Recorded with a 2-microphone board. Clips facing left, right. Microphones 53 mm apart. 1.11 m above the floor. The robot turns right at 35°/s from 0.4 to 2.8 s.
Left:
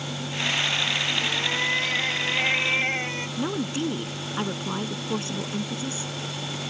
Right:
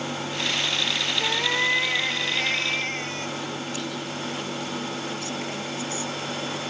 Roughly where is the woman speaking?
Left.